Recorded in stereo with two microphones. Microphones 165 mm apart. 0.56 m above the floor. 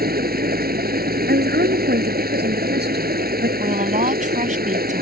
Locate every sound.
0.0 s running water: 65° right (ahead or behind)
1.3 s a woman speaking: 85° right
3.6 s a woman speaking: 50° right (ahead or behind)